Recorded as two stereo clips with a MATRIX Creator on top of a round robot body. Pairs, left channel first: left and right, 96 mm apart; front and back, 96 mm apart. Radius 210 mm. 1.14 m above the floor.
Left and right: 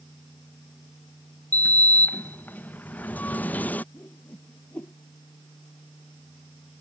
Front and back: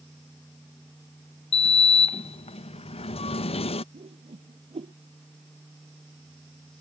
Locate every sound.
1.5 s a sliding door: 15° left
3.9 s a whoosh: 165° left